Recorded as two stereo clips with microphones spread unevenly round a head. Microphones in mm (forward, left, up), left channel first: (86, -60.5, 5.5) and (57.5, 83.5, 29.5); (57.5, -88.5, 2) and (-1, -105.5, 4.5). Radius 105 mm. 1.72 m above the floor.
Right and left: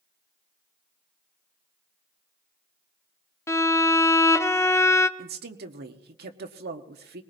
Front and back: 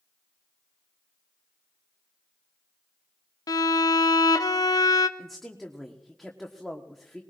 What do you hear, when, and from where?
3.5 s a violin: 5° right, 0.7 m
5.2 s a woman speaking: 105° left, 1.1 m